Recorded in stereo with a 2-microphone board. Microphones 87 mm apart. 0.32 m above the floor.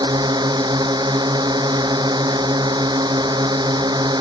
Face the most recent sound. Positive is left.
turn(degrees=-55)  # may be behind; listen again after turning